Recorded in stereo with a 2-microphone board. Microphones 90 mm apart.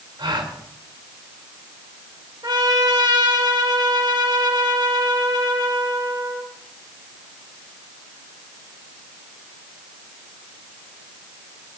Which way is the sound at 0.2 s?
65° right (ahead or behind).